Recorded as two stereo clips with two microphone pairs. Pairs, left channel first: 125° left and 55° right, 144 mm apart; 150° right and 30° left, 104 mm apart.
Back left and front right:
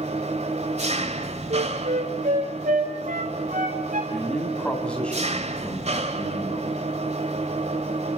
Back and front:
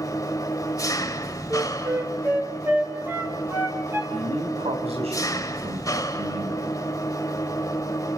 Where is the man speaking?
40° left, 6 m.